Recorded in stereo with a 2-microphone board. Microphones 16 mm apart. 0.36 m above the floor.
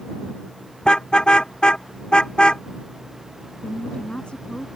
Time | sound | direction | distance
0.8 | a car horn | 50° left (ahead or behind) | ?
3.6 | a woman speaking | 70° left (ahead or behind) | ?